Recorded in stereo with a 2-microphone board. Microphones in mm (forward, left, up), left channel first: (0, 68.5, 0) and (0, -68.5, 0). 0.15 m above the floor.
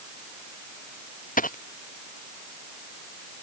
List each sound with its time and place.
1.4 s a dropped coin: 85° left